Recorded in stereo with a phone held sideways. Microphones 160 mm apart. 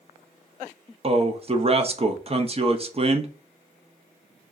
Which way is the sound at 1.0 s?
40° right (ahead or behind).